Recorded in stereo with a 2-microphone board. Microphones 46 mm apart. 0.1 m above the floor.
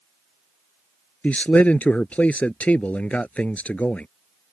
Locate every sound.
1.2 s a man speaking: 35° left (ahead or behind)